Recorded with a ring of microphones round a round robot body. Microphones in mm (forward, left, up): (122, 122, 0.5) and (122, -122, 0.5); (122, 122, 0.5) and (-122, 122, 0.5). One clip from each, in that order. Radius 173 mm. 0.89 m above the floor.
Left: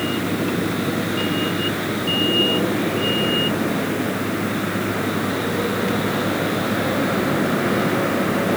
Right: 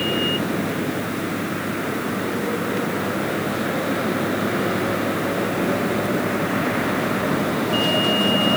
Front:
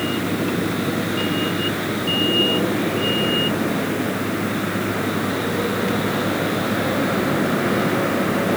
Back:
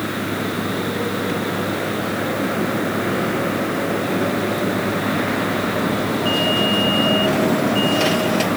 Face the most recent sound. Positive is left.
No sound to turn to.